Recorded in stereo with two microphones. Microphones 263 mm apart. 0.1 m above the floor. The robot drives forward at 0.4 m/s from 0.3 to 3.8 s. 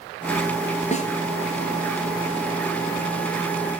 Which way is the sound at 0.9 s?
25° left (ahead or behind).